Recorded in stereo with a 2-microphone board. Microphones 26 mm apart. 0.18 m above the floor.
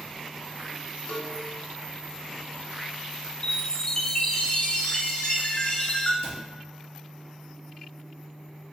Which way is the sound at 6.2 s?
40° left (ahead or behind).